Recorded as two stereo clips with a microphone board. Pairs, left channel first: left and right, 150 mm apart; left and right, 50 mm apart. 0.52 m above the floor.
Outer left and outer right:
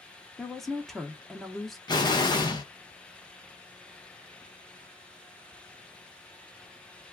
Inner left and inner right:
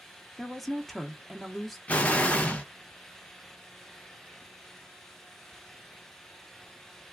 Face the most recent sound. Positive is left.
turn(degrees=30)  # may be behind; listen again after turning